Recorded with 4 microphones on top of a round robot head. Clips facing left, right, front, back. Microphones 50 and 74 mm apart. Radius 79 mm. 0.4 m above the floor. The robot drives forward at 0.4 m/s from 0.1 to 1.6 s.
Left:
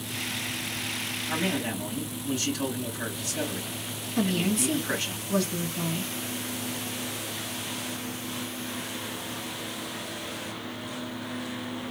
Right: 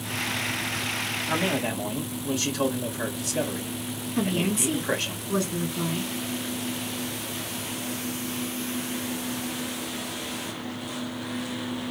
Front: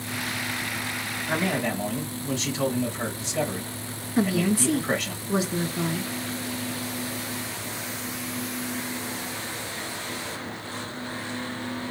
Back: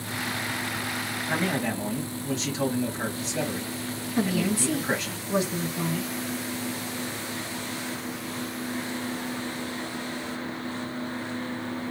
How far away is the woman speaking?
About 1.4 m.